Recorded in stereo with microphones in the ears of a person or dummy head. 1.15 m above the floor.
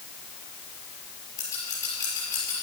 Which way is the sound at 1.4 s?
15° left (ahead or behind).